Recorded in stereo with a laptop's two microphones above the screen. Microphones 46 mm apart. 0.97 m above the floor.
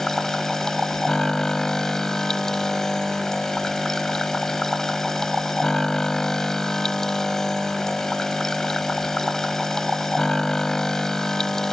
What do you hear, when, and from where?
0.0 s a machine running: 10° left (ahead or behind)